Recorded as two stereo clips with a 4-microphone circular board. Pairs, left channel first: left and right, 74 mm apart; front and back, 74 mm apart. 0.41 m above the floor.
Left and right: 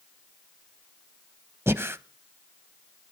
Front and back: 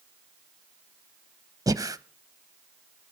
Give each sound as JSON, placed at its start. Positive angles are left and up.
{"t": 1.7, "sound": "breathing", "azimuth_deg": -145, "distance_m": 0.7}